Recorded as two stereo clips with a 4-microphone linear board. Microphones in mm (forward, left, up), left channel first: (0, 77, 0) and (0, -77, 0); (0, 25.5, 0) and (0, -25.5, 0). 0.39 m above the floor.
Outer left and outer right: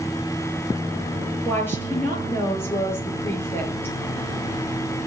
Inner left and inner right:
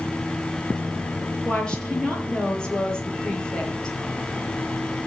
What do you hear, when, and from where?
1.4 s a woman speaking: 15° left (ahead or behind), 7 m